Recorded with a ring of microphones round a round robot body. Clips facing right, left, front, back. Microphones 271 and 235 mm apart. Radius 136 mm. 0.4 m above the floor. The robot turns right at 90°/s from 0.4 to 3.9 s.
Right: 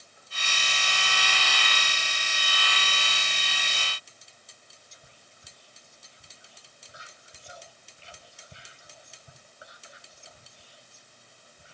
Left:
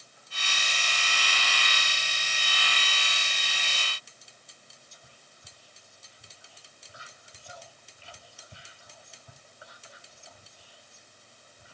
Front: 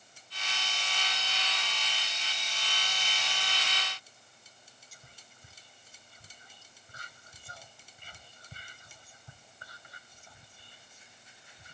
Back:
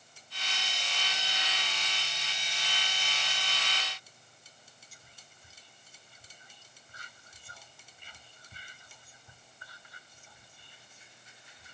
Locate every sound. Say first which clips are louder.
4.9 s whispering: even, front 1 dB; 25° right, 1.4 m